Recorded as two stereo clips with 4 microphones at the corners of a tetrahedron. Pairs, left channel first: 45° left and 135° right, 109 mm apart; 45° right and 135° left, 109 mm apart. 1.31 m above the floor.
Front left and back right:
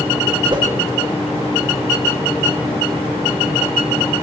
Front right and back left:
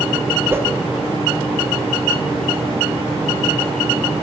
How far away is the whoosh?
About 0.9 m.